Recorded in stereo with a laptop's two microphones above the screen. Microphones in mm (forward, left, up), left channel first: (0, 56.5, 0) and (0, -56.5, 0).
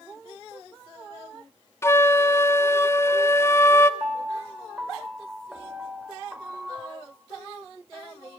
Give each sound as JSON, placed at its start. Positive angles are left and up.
{"t": 1.8, "sound": "a flute", "side_deg": 25, "distance_m": 0.6}
{"t": 4.0, "sound": "a piano", "side_deg": -10, "distance_m": 4.0}